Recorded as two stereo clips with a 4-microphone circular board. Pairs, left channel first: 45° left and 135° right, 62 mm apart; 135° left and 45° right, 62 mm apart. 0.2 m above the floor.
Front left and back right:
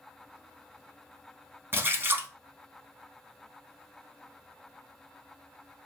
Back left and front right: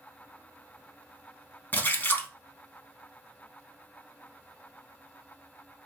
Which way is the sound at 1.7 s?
175° right.